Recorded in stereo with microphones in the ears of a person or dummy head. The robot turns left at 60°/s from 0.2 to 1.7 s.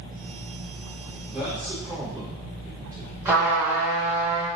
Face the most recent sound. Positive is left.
turn(degrees=-10)  # may be behind; listen again after turning